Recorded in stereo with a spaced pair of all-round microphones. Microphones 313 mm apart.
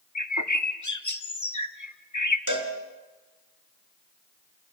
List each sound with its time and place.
0.1 s a bird: 65° left (ahead or behind), 1.4 m
2.5 s a cowbell: 75° right (ahead or behind), 3.5 m